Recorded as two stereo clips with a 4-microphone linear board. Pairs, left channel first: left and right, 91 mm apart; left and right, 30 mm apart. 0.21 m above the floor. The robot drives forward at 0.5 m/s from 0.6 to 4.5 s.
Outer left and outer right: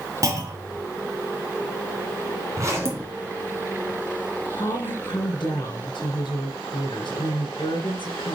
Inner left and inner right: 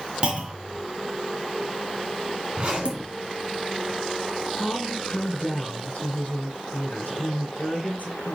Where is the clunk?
35° right (ahead or behind), 1.8 m; by 0.8 s 40° right (ahead or behind), 1.8 m.